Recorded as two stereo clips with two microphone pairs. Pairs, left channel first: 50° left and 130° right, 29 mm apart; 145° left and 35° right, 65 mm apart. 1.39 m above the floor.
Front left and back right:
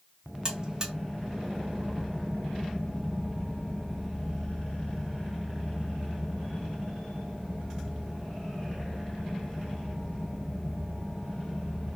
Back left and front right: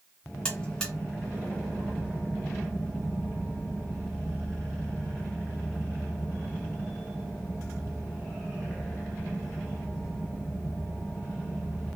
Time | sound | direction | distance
0.5 | a buzzer | 150° right | 1.0 m